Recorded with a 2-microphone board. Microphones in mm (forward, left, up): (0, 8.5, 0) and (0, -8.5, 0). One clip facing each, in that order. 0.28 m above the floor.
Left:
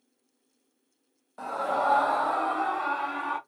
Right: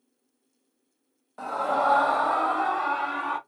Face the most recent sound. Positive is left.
turn(degrees=-25)  # may be behind; listen again after turning